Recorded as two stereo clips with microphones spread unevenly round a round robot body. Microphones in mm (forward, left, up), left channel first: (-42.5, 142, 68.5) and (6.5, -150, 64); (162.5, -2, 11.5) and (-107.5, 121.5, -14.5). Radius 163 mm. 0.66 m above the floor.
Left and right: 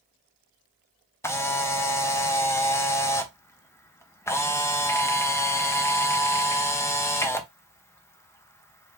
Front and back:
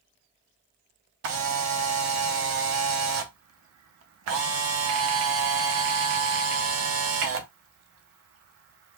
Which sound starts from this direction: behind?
A camera shutter, at 1.2 s.